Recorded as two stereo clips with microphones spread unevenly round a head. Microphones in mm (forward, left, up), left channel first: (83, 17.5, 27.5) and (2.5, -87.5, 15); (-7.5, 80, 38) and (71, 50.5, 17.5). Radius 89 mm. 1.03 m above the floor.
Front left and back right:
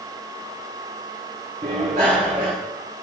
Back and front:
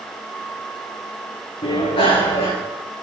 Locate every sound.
1.6 s a bicycle bell: 175° left, 8 m